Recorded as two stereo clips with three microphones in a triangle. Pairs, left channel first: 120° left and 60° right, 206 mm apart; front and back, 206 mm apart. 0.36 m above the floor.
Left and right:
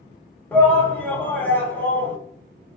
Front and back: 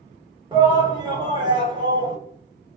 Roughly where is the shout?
Behind.